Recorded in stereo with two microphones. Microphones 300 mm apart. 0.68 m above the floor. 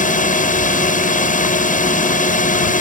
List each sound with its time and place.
0.0 s a drone: 30° left (ahead or behind)